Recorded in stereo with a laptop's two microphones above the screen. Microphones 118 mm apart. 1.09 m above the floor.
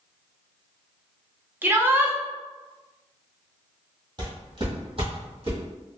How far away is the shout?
About 0.5 m.